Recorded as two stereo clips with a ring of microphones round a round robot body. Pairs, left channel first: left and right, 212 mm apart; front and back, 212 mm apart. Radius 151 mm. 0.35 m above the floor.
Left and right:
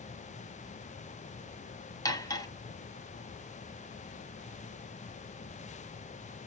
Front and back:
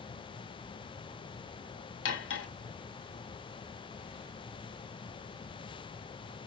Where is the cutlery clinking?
15° left, 1.8 m.